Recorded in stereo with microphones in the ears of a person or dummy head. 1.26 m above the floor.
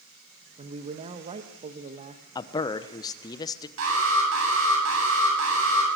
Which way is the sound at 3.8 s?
80° right.